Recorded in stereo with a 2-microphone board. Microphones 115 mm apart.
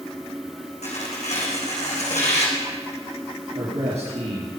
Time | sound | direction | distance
0.8 | tearing paper | 75° left (ahead or behind) | 3 m
3.5 | a man speaking | 65° right (ahead or behind) | 5 m